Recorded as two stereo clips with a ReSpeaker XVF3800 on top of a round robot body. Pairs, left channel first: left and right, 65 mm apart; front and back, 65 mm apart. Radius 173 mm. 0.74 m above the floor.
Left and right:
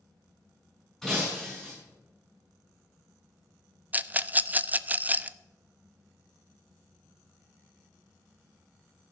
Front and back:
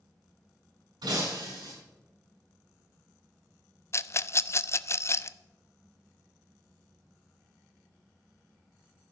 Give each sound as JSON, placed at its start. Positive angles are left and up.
{"t": 1.0, "sound": "breaking glass", "azimuth_deg": 175, "distance_m": 6.5}
{"t": 3.9, "sound": "a rattle", "azimuth_deg": -30, "distance_m": 0.6}